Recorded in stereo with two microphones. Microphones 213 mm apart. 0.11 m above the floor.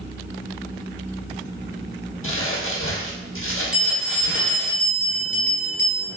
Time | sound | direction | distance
2.2 | crumpling | 75° left (ahead or behind) | 1.0 m
3.7 | a bell | 20° left (ahead or behind) | 1.8 m